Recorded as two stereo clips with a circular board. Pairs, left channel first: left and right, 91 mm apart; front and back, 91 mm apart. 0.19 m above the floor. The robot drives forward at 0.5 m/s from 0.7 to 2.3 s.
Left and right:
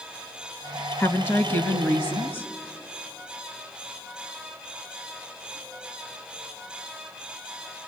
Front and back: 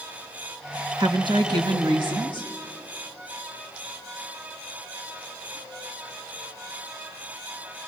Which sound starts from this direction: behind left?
A woman speaking, at 1.0 s.